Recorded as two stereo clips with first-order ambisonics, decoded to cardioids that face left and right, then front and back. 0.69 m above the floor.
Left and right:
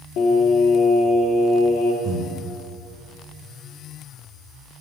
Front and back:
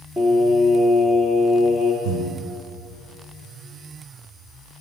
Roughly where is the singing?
Left.